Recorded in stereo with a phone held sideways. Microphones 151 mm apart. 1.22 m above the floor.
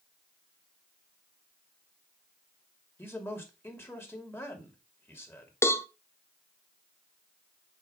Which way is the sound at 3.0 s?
15° left (ahead or behind).